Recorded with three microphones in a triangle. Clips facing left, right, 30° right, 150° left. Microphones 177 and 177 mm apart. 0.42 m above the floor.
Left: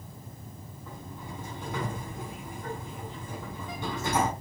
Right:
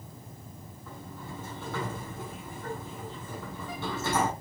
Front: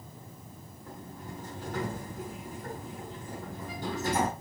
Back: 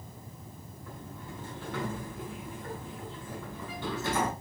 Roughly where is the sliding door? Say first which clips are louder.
Even, front 1 dB; ahead.